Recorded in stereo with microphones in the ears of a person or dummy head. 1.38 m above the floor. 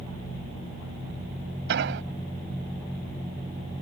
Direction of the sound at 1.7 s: 65° right (ahead or behind).